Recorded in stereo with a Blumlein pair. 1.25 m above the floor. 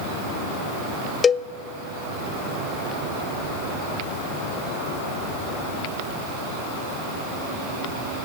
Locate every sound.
1.2 s a cowbell: 20° left, 0.6 m